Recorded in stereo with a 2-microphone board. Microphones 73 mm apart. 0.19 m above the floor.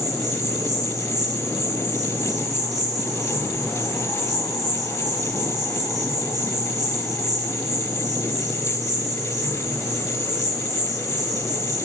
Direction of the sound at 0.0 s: 55° right (ahead or behind).